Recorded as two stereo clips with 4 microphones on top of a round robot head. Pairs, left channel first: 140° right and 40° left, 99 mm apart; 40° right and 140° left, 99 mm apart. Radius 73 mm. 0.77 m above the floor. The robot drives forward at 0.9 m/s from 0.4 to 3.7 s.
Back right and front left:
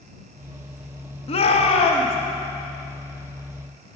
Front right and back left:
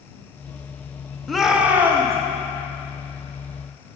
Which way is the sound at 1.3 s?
130° right.